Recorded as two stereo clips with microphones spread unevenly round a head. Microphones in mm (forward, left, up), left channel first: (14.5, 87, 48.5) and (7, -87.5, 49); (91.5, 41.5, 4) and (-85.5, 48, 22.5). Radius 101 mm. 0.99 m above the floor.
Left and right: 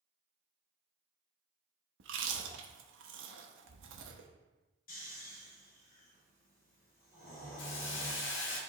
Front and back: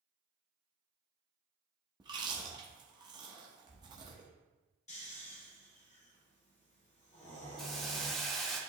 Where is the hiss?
85° left, 1.1 m.